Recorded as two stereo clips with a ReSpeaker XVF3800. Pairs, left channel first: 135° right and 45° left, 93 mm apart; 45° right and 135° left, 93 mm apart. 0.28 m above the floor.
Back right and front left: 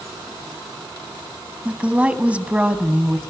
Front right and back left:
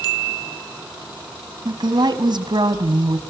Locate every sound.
1.6 s a woman speaking: 120° left, 1.7 m